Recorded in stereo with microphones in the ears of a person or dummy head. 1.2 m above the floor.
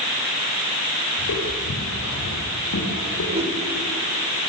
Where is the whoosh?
30° right (ahead or behind), 2.5 m.